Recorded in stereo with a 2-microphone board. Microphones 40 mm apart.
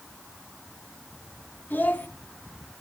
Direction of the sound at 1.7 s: 50° left (ahead or behind).